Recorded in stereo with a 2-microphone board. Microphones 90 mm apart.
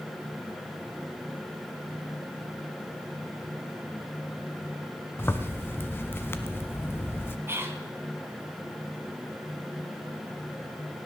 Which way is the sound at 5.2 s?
25° left (ahead or behind).